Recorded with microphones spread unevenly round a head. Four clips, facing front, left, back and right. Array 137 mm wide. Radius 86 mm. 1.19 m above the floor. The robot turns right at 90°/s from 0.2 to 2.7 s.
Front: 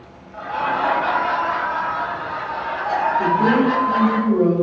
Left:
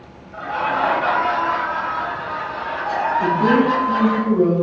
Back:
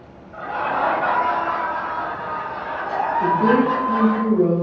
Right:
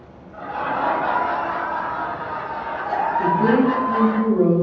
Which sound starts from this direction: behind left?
Laughter, at 0.3 s.